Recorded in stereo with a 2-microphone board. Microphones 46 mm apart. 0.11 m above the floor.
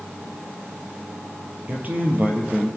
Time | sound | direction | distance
1.7 | a man speaking | 40° right (ahead or behind) | 3 m